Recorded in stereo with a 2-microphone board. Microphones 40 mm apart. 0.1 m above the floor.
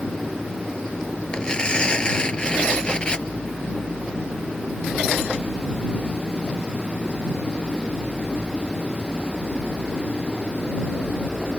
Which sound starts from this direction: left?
Tearing paper, at 1.3 s.